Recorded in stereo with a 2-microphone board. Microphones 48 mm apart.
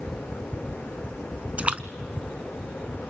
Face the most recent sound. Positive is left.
turn(degrees=-30)  # may be behind; listen again after turning